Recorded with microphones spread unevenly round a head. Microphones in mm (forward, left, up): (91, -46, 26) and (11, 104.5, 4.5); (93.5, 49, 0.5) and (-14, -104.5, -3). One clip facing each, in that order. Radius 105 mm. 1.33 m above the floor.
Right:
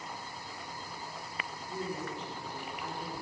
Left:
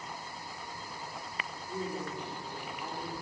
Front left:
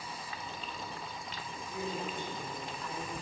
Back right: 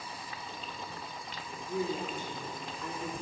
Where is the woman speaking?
160° right, 3.5 m.